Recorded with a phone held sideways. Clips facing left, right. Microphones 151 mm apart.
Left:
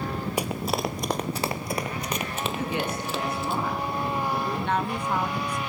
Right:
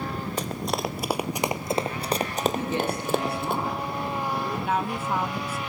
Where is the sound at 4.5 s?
5° right (ahead or behind), 1.0 m.